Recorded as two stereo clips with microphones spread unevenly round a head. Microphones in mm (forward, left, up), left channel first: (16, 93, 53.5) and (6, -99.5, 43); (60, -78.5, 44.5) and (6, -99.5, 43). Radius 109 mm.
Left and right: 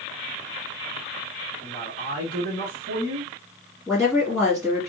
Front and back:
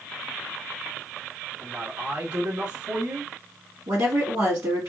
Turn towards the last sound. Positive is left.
turn(degrees=-175)